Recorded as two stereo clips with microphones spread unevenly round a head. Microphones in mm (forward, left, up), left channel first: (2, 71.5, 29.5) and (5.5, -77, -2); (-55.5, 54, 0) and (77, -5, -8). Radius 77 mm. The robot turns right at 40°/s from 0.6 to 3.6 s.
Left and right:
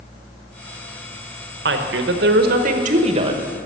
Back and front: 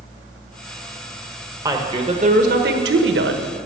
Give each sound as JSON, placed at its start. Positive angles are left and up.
{"t": 1.6, "sound": "a woman speaking", "azimuth_deg": -95, "distance_m": 1.2}